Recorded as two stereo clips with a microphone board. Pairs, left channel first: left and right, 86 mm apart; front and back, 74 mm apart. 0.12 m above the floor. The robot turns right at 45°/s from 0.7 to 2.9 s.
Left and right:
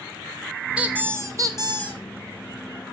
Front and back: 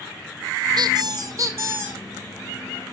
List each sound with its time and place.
0.8 s a squeak: 170° right, 1.4 m; by 2.0 s 110° right, 1.4 m